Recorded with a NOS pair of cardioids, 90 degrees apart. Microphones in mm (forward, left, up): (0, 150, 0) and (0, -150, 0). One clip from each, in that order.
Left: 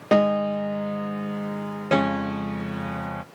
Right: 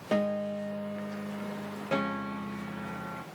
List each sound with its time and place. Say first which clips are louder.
0.1 s a piano: left 10 dB; 40° left, 0.6 m